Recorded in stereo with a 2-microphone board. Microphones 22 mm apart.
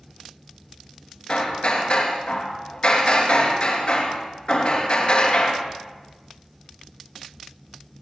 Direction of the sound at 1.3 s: 60° left (ahead or behind).